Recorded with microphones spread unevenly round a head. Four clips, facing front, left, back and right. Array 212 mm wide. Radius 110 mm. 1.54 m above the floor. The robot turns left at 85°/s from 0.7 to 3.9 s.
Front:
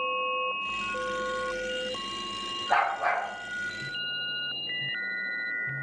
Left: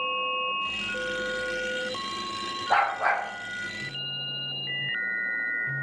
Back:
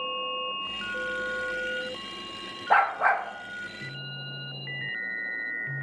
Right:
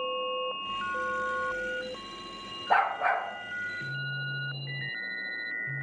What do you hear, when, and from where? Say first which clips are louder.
2.7 s a dog barking: left 1 dB, back 3 dB; 135° right, 1.0 m; by 3.2 s straight behind, 1.0 m